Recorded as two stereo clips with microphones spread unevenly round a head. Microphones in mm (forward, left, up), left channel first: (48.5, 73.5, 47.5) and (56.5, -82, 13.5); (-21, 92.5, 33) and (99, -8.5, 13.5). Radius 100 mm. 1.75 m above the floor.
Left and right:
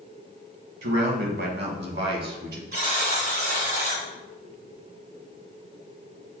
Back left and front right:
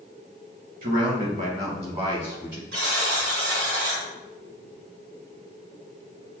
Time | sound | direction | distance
0.8 | a man speaking | 85° right | 2 m
2.7 | a buzzer | 65° right | 3 m